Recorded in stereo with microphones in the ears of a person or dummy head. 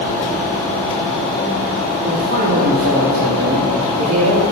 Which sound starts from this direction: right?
A man speaking, at 2.0 s.